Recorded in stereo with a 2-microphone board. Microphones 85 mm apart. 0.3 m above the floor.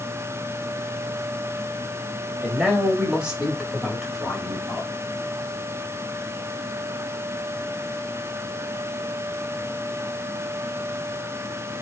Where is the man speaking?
10° right (ahead or behind), 1.5 m; by 4.9 s centre (ahead or behind), 1.8 m.